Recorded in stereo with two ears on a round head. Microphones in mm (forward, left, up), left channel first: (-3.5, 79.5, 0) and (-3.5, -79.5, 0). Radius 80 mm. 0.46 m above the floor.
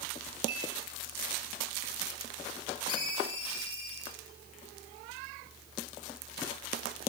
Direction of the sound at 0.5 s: 70° right (ahead or behind).